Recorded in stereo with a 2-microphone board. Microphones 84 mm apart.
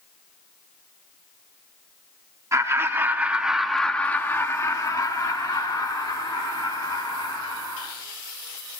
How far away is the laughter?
About 1.5 m.